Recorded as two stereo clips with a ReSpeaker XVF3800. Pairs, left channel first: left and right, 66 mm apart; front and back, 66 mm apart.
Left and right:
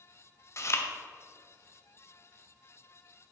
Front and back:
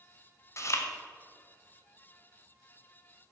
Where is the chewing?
45° left, 0.9 m.